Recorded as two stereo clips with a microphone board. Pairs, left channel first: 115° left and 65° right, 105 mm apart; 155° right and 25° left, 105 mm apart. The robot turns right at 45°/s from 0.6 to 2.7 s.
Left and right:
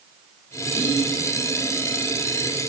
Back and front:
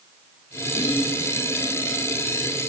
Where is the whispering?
35° right, 1.1 m; by 1.1 s 20° right, 1.1 m.